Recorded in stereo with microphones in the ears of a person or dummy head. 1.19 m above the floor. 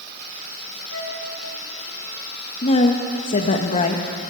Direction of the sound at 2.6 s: 35° left (ahead or behind).